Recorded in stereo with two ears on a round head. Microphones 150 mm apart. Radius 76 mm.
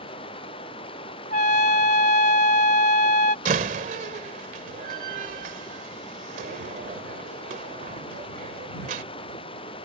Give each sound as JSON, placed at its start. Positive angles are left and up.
{"t": 0.0, "sound": "running water", "side_deg": 35}
{"t": 1.3, "sound": "a trumpet", "side_deg": 45}
{"t": 3.5, "sound": "a door slam", "side_deg": -50}